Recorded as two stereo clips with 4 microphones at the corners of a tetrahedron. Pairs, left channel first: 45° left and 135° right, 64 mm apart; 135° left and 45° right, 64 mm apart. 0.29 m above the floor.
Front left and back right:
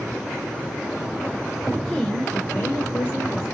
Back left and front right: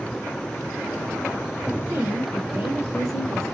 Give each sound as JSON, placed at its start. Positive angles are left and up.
{"t": 1.8, "sound": "a woman speaking", "azimuth_deg": -50, "distance_m": 1.2}